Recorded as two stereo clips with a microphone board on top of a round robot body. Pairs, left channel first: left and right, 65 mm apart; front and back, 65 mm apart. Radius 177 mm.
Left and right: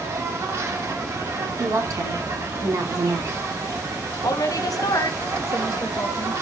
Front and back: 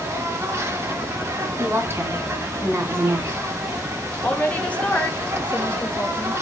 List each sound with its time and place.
0.0 s an insect: 135° right, 2.5 m
1.6 s a woman speaking: 125° right, 3 m
4.2 s a woman speaking: 70° left, 1.6 m